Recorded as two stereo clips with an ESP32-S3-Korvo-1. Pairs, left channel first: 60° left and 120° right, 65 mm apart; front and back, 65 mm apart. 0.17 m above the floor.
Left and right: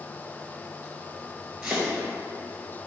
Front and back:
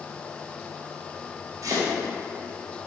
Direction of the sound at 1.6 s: 160° left.